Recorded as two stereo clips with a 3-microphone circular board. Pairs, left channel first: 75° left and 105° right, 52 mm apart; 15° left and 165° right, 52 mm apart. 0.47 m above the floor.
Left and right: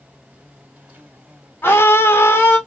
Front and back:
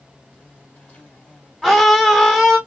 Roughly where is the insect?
Ahead right.